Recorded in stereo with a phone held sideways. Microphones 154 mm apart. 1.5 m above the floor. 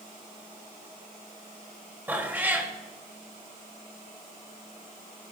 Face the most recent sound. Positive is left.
turn(degrees=-10)  # may be behind; listen again after turning